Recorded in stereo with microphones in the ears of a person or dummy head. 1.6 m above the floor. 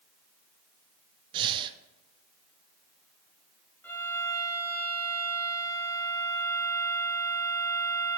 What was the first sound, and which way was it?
Breathing, 30° right (ahead or behind).